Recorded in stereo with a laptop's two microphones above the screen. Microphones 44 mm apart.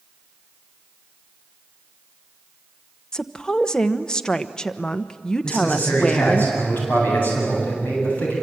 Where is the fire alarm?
I don't hear a fire alarm.